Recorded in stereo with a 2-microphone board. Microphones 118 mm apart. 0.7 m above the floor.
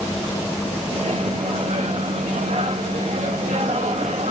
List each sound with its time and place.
0.9 s a microwave: 75° right (ahead or behind), 1.0 m